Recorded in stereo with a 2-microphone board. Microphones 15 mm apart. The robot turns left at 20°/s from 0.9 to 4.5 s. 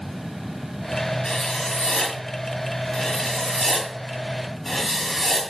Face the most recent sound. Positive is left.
turn(degrees=30)